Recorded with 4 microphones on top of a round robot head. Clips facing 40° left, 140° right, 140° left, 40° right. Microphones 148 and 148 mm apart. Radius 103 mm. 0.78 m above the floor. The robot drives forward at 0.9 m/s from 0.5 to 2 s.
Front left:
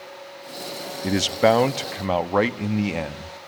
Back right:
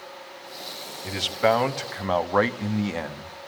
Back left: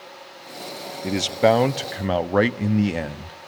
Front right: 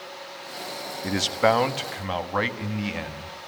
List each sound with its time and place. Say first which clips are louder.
1.0 s a man speaking: front left 4 dB, back left 4 dB; 65° left, 1.3 m; by 3.4 s 110° left, 1.2 m